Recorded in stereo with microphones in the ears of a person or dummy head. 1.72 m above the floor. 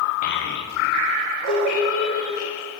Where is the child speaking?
50° left (ahead or behind), 0.7 m; by 2.4 s 80° left, 2.5 m.